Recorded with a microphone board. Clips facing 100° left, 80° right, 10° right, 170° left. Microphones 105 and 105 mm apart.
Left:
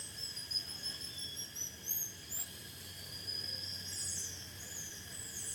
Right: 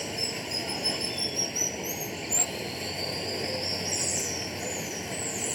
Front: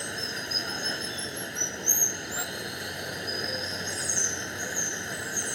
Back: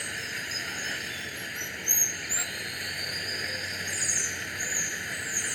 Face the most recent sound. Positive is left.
turn(degrees=-75)